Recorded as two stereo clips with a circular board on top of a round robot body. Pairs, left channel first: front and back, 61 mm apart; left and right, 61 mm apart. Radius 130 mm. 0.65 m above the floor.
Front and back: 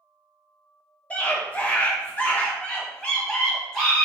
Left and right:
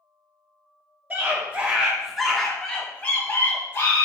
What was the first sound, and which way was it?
A scream, 50° right.